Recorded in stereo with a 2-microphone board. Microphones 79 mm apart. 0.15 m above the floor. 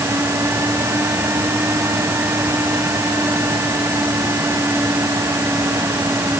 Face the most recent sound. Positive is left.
No sound to turn to.